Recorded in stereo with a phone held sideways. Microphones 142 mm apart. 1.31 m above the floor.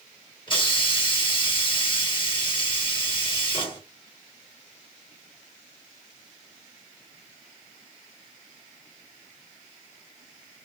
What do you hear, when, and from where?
0.5 s a hiss: 35° left (ahead or behind), 0.9 m